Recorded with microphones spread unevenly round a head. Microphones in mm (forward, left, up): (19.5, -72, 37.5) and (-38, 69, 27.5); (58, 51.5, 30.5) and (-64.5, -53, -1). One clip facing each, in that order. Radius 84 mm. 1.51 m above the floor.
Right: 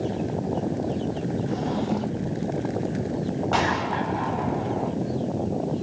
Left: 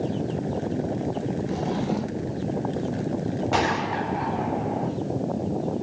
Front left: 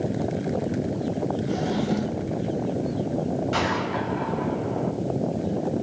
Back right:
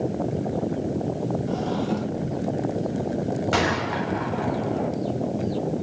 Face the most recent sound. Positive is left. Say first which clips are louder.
# even, back right 1 dB
turn(degrees=-165)